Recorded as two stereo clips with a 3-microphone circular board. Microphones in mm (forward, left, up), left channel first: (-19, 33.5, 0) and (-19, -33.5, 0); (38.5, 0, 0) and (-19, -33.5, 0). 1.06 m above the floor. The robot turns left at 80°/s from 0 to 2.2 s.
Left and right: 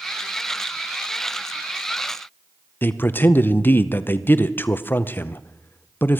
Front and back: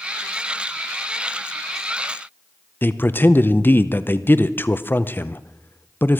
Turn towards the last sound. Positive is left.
turn(degrees=60)